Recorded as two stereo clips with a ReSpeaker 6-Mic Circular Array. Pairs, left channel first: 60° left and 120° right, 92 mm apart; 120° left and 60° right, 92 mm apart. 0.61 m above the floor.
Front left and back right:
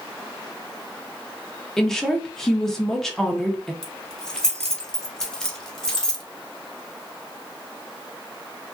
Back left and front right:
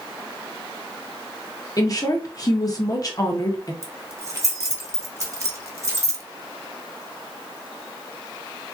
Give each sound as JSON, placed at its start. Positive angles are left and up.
{"t": 1.8, "sound": "a woman speaking", "azimuth_deg": 145, "distance_m": 0.7}
{"t": 3.8, "sound": "keys jangling", "azimuth_deg": -20, "distance_m": 0.7}